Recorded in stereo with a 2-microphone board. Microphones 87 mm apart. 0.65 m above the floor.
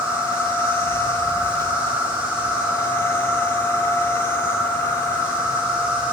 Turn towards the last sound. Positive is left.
turn(degrees=-15)  # may be behind; listen again after turning